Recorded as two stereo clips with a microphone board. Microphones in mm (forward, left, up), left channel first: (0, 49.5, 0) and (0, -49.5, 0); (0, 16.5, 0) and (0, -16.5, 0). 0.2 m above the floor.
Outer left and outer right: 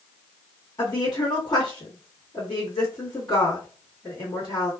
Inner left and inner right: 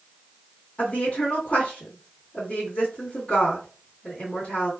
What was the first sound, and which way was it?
A woman speaking, 40° left (ahead or behind).